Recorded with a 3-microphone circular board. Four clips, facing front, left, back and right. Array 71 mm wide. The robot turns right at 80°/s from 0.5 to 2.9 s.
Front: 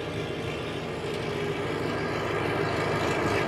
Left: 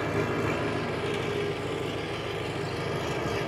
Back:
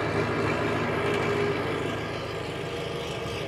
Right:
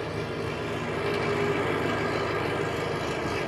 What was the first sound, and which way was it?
An engine running, 155° left.